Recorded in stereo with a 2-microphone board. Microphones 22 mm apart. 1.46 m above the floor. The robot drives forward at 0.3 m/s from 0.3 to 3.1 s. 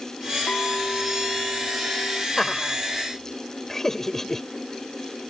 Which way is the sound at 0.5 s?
85° left.